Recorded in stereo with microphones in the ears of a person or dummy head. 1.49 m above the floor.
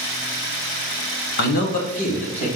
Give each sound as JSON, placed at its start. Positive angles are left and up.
{"t": 1.4, "sound": "a man speaking", "side_deg": 55, "distance_m": 1.1}